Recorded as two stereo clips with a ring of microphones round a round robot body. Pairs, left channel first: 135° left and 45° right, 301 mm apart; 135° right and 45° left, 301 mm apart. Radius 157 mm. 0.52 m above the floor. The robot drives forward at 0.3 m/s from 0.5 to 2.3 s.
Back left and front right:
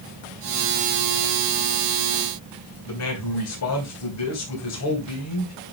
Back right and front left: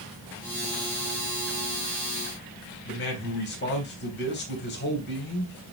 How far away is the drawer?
I don't hear a drawer.